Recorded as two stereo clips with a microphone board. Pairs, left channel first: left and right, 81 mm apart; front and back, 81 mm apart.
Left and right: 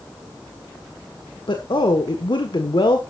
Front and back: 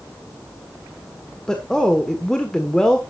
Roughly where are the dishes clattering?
No dishes clattering in this recording.